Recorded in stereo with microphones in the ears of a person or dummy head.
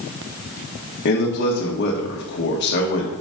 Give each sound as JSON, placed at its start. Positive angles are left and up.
{"t": 1.1, "sound": "a man speaking", "side_deg": 55, "distance_m": 1.4}